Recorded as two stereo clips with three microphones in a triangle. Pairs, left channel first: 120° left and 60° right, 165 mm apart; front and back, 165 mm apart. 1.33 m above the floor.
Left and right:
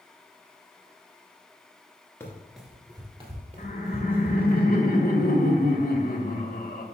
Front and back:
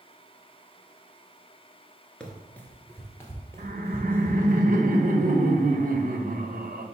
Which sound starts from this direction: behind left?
Laughter, at 3.6 s.